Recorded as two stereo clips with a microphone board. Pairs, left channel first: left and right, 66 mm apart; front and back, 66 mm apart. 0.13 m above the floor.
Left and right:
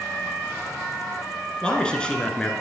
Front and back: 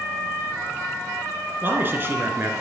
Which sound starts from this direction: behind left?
A man speaking, at 1.6 s.